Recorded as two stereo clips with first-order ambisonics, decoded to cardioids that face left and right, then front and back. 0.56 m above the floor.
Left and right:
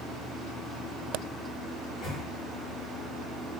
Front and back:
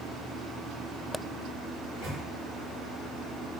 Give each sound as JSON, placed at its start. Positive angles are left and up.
{"t": 1.8, "sound": "a microwave", "azimuth_deg": 160, "distance_m": 2.0}